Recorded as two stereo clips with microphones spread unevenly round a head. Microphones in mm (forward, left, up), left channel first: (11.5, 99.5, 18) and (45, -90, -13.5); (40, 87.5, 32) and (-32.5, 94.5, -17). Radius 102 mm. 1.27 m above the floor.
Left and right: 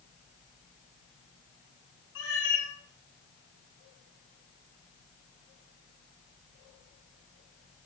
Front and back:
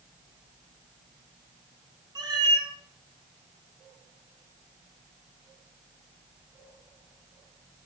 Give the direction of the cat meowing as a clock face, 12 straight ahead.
8 o'clock.